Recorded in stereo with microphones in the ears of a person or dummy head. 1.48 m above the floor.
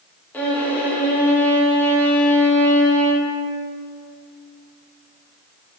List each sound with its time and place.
0.3 s a violin: 5° left (ahead or behind), 0.5 m